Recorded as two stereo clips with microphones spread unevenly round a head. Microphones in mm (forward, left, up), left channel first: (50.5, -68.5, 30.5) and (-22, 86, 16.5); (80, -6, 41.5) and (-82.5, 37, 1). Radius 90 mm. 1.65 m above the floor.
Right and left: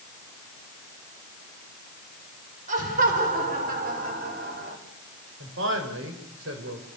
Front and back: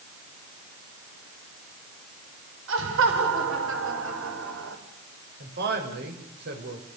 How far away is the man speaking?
About 6 m.